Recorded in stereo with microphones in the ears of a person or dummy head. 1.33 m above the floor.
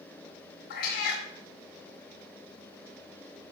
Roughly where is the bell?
I don't hear a bell.